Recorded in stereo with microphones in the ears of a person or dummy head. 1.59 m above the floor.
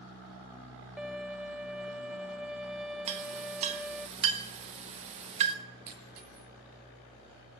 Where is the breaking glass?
60° right (ahead or behind), 5.5 m.